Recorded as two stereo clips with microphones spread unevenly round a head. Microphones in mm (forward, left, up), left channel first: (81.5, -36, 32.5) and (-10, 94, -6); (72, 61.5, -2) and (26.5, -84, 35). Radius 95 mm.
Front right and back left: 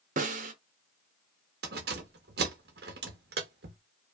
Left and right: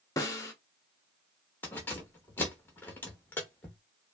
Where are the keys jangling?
160° left, 0.8 m.